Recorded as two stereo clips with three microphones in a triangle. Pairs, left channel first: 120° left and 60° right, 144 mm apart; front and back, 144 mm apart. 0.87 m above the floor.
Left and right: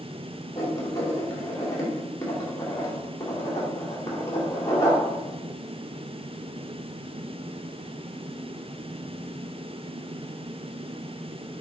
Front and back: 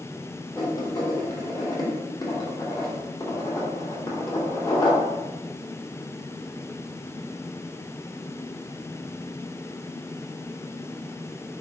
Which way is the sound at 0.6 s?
55° left.